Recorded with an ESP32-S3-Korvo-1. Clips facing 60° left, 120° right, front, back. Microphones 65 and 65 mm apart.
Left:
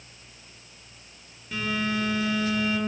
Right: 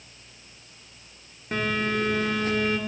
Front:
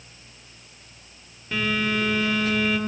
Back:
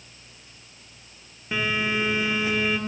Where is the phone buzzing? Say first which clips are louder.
Right 2 dB, front 1 dB; 120° right, 2 m.